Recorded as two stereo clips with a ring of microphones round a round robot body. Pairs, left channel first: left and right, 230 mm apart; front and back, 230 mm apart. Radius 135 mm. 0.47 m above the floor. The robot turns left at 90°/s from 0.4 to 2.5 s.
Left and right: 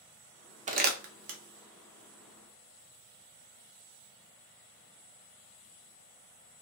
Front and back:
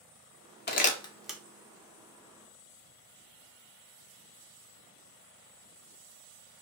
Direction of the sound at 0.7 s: 35° right.